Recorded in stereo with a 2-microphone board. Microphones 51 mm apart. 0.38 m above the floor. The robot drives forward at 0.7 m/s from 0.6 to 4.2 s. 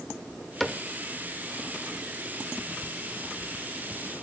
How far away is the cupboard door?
About 0.6 m.